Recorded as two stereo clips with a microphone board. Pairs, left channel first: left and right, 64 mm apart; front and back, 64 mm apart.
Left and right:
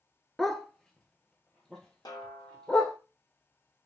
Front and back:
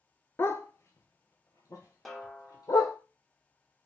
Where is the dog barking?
5° left, 0.6 m; by 3.0 s 15° left, 1.8 m.